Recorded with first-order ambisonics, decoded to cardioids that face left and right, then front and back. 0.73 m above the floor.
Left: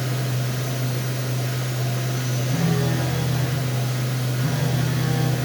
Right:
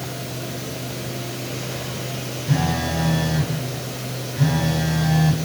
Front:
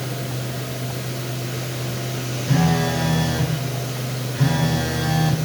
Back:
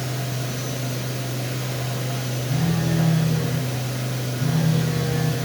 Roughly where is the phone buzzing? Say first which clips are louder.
Right 3 dB, front 7 dB; ahead right.